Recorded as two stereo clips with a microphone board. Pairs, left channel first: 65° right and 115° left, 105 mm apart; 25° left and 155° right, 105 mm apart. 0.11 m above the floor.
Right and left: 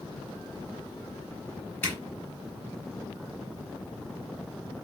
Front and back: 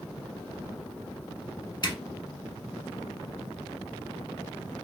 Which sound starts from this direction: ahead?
A zipper, at 1.8 s.